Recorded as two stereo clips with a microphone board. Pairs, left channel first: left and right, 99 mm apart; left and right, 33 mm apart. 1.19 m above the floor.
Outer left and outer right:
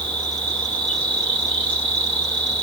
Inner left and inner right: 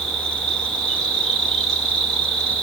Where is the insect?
15° left (ahead or behind), 1.9 m.